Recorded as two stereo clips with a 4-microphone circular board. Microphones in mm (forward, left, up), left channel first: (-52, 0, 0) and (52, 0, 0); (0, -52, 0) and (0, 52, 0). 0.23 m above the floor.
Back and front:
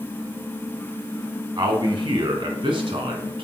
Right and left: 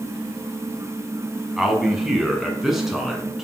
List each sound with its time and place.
1.6 s a man speaking: 5° left, 1.6 m